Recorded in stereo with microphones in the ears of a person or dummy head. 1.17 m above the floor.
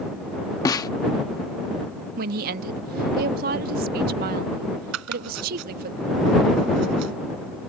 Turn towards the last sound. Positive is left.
turn(degrees=-75)  # may be behind; listen again after turning